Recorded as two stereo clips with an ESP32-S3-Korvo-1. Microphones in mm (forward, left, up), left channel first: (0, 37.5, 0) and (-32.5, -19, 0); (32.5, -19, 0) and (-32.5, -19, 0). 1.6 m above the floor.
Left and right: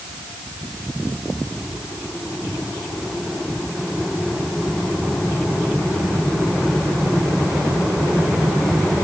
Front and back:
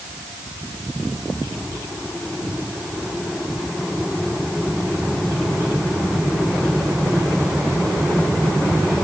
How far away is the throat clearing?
No throat clearing in this recording.